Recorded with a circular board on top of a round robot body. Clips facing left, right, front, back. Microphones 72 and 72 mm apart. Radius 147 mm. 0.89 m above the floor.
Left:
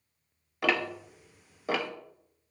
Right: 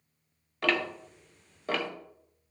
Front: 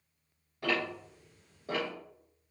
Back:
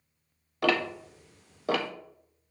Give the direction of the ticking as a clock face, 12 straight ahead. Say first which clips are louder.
Even, back 6 dB; 6 o'clock.